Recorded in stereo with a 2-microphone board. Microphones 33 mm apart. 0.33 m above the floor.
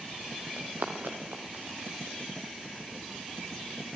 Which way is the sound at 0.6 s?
70° right (ahead or behind).